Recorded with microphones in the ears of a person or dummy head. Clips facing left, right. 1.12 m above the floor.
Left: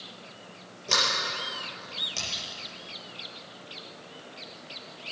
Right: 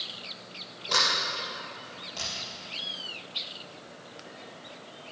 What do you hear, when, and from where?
0.9 s a sliding door: 40° left (ahead or behind), 6 m